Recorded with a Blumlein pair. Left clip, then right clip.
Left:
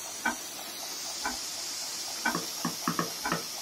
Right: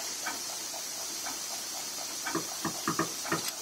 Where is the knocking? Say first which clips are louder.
Even; 15° left, 1.4 m.